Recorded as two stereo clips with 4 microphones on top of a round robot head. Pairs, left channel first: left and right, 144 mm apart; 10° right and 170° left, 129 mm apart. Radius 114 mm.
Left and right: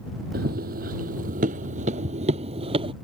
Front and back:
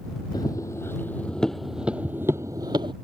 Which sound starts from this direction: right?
Running footsteps, at 0.3 s.